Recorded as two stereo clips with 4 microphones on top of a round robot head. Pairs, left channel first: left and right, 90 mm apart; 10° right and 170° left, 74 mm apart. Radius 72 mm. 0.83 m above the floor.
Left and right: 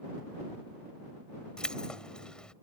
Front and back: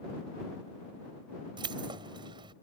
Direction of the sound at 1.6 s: 170° left.